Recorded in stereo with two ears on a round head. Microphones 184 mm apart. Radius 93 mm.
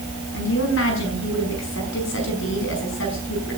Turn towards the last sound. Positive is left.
turn(degrees=60)  # may be behind; listen again after turning